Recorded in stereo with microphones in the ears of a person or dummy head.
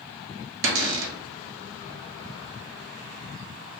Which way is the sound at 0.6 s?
65° right (ahead or behind).